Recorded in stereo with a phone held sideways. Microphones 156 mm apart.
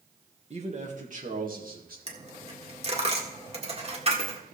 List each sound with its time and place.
0.5 s a man speaking: 45° right (ahead or behind), 1.8 m; by 2.0 s 70° right (ahead or behind), 2.5 m
2.1 s a dropped coin: 40° right (ahead or behind), 1.6 m